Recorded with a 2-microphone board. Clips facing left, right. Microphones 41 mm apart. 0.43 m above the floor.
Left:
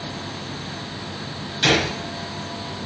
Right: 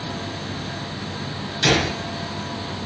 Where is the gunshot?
25° left (ahead or behind), 1.3 m.